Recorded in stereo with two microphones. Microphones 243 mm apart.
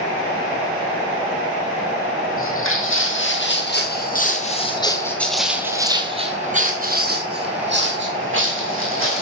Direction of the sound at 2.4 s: 60° left (ahead or behind).